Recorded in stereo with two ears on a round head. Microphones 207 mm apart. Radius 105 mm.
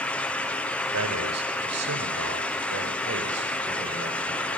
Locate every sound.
0.9 s a man speaking: 75° right (ahead or behind), 3.5 m; by 4.6 s 40° right (ahead or behind), 5 m